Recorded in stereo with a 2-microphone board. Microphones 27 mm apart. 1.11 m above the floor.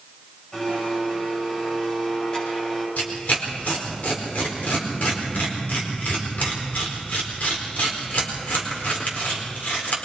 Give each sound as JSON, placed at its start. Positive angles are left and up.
{"t": 0.5, "sound": "a blender", "side_deg": 35, "distance_m": 10.0}
{"t": 3.0, "sound": "tearing paper", "side_deg": 75, "distance_m": 4.0}